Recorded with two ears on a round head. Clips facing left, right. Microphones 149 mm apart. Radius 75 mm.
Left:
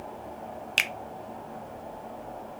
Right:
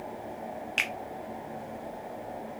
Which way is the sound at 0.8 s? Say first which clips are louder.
Even; 45° left (ahead or behind).